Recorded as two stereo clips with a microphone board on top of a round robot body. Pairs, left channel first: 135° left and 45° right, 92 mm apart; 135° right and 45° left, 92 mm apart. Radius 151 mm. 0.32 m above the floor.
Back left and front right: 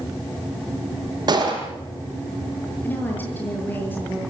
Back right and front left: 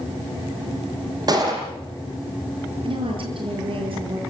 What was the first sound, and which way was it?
A gunshot, straight ahead.